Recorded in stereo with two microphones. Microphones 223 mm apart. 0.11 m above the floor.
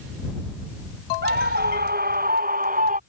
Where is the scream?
45° right (ahead or behind); by 3.0 s 35° right (ahead or behind).